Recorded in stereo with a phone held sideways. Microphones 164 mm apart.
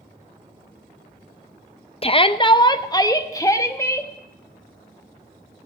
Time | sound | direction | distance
2.0 | a shout | 35° left (ahead or behind) | 0.6 m